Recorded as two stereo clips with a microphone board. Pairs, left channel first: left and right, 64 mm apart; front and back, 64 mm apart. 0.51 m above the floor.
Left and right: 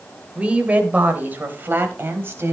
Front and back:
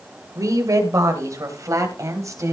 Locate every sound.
0.3 s a woman speaking: 160° right, 2.5 m; by 2.5 s 145° right, 4 m